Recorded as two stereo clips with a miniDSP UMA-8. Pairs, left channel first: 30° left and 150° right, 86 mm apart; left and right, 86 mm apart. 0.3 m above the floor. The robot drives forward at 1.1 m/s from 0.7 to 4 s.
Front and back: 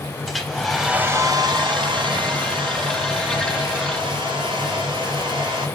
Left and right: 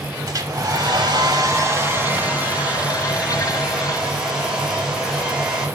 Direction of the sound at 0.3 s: 60° right.